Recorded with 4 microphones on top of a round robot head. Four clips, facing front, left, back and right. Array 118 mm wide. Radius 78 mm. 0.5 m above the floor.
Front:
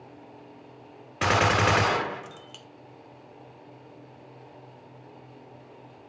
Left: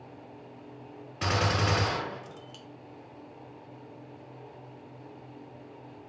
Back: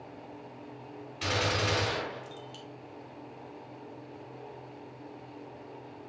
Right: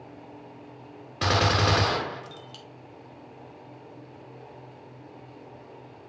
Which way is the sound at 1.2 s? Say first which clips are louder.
Right 5 dB, front 9 dB; 30° right.